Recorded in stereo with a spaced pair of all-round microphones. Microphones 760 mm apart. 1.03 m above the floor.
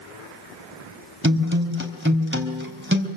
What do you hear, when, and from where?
1.2 s a guitar: 15° right (ahead or behind), 4 m